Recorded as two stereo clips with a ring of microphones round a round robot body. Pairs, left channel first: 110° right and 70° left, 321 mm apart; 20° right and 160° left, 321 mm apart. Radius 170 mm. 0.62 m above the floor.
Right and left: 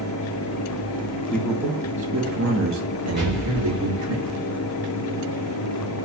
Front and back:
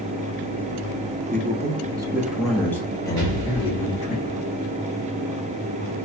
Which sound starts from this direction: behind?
A man speaking, at 1.3 s.